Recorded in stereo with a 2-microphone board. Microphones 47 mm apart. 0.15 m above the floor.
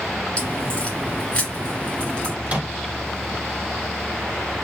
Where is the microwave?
35° right (ahead or behind), 1.2 m.